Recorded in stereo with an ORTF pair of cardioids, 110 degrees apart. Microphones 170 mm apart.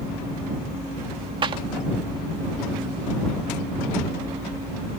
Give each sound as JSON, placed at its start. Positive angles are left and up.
{"t": 1.4, "sound": "a clap", "azimuth_deg": -30}